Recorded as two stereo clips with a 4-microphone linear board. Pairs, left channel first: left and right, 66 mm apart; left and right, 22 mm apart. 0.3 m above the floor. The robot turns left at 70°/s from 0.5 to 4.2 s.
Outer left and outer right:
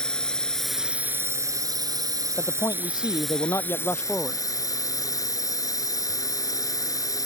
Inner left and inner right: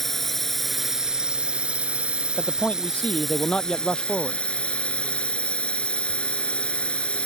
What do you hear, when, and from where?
0.0 s a drone: 15° left; by 7.2 s 115° left
2.4 s a man speaking: 135° left; by 4.4 s 5° left